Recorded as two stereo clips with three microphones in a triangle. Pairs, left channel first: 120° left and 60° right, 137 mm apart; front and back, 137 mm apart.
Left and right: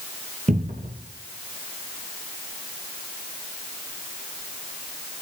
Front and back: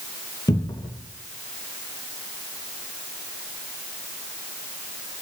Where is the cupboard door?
60° right, 2.5 m.